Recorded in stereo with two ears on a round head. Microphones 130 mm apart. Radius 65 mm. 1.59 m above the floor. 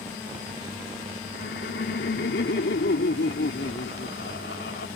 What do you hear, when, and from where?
1.3 s laughter: 85° left